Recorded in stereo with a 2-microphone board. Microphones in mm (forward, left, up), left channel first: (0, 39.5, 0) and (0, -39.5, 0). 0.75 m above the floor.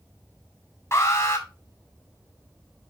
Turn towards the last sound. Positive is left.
turn(degrees=35)  # may be behind; listen again after turning